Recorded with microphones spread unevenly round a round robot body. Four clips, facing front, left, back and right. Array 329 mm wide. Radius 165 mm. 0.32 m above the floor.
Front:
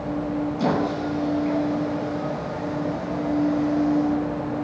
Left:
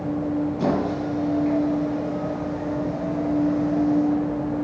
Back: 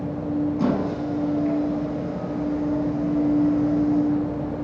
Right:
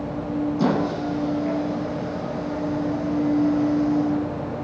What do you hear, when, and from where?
0.6 s a squeak: 115° right, 2.0 m